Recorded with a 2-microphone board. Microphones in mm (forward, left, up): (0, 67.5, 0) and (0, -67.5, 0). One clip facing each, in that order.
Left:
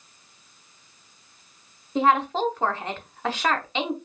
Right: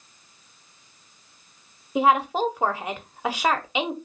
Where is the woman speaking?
10° right (ahead or behind), 0.9 m.